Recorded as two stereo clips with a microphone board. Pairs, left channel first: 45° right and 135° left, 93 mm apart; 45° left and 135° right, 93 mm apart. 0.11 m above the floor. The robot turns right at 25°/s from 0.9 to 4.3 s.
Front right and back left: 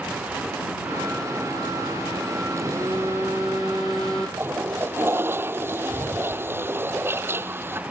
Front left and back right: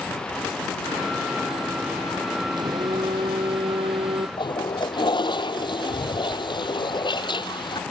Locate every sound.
2.6 s a phone buzzing: 175° right; by 4.3 s 130° right
4.4 s a toilet flushing: 70° left